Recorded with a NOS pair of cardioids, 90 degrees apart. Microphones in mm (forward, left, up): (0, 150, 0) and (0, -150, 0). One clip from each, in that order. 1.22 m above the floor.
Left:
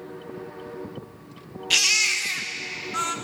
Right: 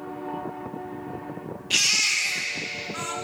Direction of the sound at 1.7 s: 30° left.